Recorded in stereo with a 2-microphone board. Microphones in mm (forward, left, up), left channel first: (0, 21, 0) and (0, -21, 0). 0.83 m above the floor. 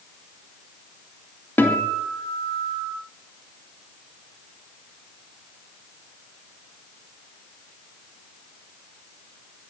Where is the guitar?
60° left (ahead or behind), 2.5 m.